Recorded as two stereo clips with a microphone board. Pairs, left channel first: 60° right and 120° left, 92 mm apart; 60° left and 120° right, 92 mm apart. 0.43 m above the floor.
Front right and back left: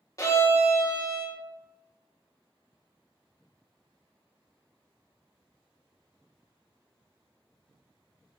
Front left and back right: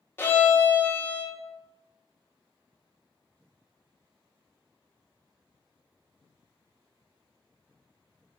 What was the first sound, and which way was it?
A violin, 5° right.